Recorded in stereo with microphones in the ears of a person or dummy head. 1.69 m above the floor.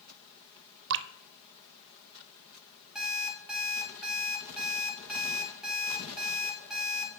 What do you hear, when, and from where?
0.9 s dripping: 60° right (ahead or behind), 0.5 m
3.0 s an alarm clock: centre (ahead or behind), 3.5 m